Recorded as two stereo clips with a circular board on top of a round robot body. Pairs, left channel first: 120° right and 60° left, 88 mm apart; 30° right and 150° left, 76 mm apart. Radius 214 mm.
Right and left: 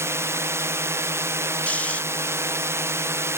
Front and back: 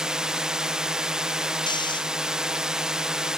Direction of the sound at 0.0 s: 75° left.